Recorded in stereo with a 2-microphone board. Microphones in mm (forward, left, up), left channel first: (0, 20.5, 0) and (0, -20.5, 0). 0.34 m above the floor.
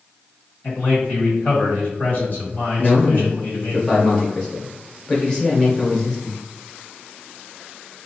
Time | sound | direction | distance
0.6 | a man speaking | 50° left (ahead or behind) | 1.6 m
2.8 | a man speaking | 15° left (ahead or behind) | 1.1 m